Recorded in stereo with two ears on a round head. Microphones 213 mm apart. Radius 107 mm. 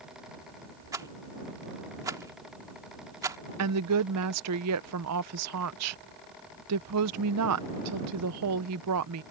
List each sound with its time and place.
0.9 s a rattle: 15° right (ahead or behind)
3.6 s a woman speaking: 75° right (ahead or behind)